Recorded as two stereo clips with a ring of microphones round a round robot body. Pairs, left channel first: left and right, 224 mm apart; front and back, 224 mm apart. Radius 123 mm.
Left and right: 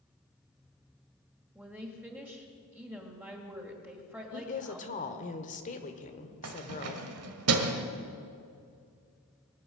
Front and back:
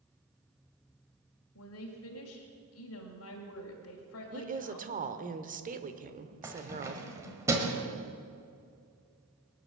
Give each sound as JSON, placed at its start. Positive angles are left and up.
{"t": 1.6, "sound": "a woman speaking", "azimuth_deg": -10, "distance_m": 2.0}
{"t": 4.3, "sound": "a woman speaking", "azimuth_deg": 140, "distance_m": 1.3}
{"t": 6.4, "sound": "keys jangling", "azimuth_deg": -100, "distance_m": 1.4}